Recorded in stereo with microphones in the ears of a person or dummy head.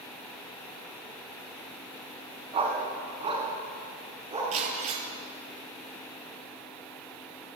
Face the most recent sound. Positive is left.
turn(degrees=-35)  # may be behind; listen again after turning